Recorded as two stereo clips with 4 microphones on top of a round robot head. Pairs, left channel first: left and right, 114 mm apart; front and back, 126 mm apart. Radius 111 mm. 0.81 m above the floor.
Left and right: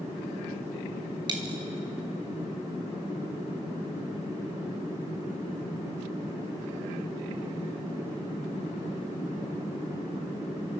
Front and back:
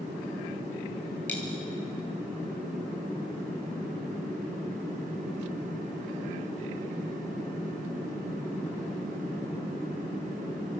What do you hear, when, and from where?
1.3 s a dropped coin: 75° right, 0.9 m